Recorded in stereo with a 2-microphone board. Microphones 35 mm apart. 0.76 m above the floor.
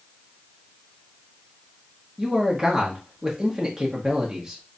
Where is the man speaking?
15° right (ahead or behind), 0.8 m.